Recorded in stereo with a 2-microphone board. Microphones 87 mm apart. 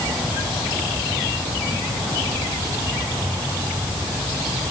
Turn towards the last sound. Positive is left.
No sound to turn to.